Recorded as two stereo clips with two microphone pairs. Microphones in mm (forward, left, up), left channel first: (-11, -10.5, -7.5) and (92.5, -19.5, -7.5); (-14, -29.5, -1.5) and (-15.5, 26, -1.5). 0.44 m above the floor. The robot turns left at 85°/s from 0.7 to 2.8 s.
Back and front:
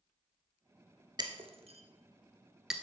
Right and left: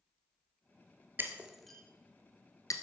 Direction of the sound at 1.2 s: 40° left.